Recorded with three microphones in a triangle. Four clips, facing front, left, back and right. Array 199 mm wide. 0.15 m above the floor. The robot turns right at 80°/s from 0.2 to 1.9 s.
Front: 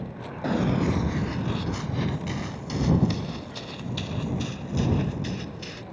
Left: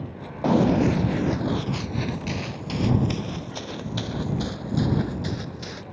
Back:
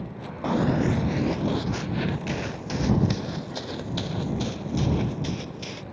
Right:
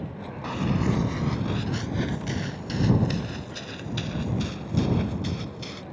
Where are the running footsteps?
80° left; by 5.8 s 140° left.